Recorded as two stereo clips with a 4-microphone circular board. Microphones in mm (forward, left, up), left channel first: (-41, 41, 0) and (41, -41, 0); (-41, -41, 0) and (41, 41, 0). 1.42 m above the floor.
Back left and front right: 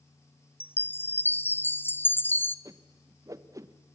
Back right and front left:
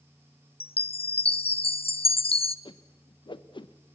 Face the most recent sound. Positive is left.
turn(degrees=-100)